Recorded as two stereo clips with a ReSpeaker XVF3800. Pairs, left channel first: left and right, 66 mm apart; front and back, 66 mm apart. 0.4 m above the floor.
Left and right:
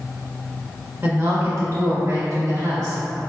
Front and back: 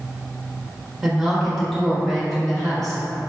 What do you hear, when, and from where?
1.0 s a woman speaking: 100° right, 1.1 m; by 3.0 s 80° right, 2.5 m